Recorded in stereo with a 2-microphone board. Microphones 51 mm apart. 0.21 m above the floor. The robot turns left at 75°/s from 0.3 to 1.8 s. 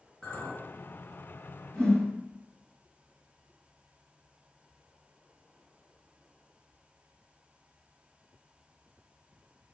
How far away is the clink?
About 1.9 m.